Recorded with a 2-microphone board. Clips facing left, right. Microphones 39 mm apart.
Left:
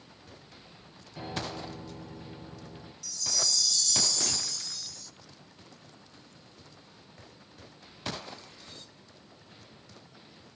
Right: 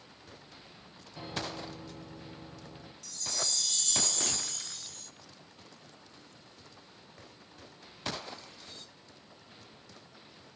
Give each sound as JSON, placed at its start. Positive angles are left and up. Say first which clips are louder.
{"t": 1.1, "sound": "a piano", "louder": "left 2 dB", "side_deg": 15, "distance_m": 5.0}
{"t": 3.0, "sound": "a chime", "louder": "left 3 dB", "side_deg": -40, "distance_m": 0.7}